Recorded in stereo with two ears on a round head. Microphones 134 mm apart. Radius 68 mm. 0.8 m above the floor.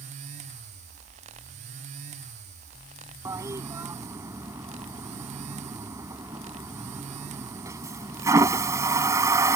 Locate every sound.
3.2 s a toilet flushing: 20° right (ahead or behind)